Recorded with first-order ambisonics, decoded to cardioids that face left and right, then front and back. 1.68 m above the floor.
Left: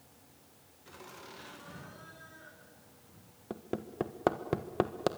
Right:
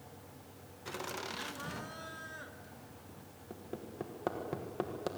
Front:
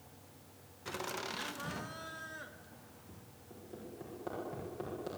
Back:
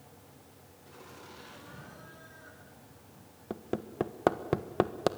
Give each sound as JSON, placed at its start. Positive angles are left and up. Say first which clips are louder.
{"t": 0.8, "sound": "laughter", "louder": "right 9 dB, front 11 dB", "azimuth_deg": -35, "distance_m": 2.0}
{"t": 3.5, "sound": "hammering", "louder": "left 6 dB, back 13 dB", "azimuth_deg": 150, "distance_m": 1.4}